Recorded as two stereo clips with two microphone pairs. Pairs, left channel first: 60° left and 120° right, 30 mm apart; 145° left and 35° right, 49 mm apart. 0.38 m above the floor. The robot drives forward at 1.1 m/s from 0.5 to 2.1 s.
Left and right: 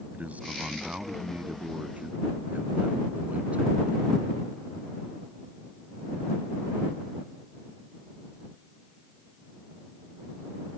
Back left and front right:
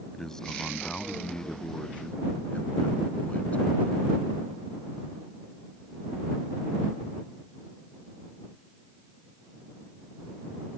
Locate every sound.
0.1 s a man speaking: 140° right; by 4.0 s 160° right